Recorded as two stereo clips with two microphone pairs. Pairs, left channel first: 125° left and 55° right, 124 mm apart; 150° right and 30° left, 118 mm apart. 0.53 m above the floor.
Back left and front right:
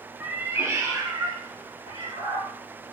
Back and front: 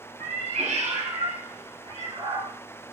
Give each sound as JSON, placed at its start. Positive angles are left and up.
{"t": 0.2, "sound": "a cat meowing", "azimuth_deg": 25, "distance_m": 1.2}